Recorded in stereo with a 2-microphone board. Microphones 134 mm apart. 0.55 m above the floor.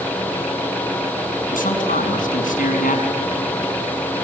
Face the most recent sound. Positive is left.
turn(degrees=75)  # may be behind; listen again after turning